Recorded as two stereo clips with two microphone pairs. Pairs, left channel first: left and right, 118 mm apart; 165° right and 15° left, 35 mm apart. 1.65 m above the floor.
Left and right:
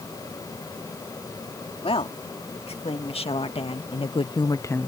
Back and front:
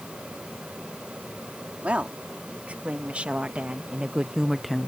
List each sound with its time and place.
1.8 s a woman speaking: 60° left; by 4.9 s 155° left